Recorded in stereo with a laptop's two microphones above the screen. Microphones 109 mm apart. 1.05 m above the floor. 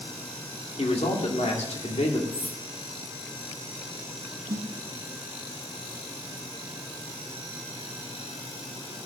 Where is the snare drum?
30° right (ahead or behind), 1.0 m.